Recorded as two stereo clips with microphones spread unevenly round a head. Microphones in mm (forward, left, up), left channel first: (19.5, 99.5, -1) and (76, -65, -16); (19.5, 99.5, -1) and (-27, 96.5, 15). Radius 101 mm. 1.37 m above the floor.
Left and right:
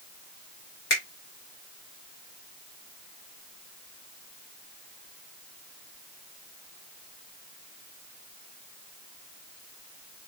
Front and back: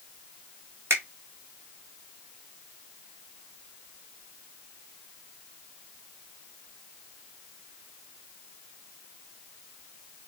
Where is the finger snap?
150° left, 1.6 m.